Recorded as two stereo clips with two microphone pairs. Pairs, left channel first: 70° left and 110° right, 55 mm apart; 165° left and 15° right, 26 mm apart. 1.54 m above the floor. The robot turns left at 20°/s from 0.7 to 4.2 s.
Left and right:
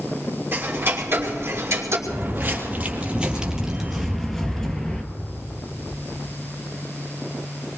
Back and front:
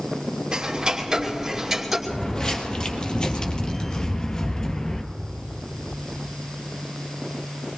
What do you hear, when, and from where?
0.5 s ticking: 70° right, 2.5 m; by 2.0 s 95° right, 2.5 m
2.1 s footsteps: 135° right, 2.5 m; by 5.0 s 120° left, 1.6 m